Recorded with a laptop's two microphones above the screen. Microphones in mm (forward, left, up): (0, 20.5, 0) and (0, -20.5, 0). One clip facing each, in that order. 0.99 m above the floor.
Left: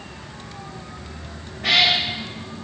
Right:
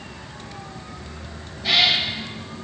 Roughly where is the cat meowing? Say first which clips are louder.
Left 1 dB; left.